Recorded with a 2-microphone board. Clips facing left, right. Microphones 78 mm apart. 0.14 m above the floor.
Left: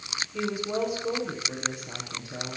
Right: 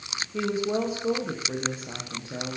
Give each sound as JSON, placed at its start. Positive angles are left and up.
{"t": 0.3, "sound": "a woman speaking", "side_deg": -30, "distance_m": 10.0}